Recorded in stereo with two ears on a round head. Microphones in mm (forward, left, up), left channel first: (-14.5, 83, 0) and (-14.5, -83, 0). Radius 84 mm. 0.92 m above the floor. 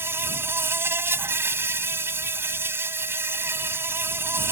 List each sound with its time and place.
0.0 s an insect: 15° right (ahead or behind)